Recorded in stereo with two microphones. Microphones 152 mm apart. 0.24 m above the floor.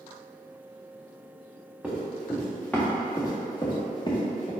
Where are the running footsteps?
5° right (ahead or behind), 1.9 m; by 4.5 s 45° left (ahead or behind), 1.8 m.